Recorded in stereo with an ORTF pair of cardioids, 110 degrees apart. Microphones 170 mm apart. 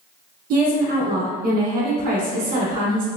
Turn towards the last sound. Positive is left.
turn(degrees=-60)